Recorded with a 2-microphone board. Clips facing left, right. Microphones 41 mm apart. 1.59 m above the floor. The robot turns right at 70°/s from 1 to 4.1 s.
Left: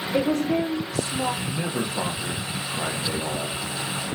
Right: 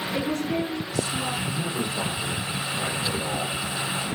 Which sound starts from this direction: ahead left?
A man speaking, at 1.4 s.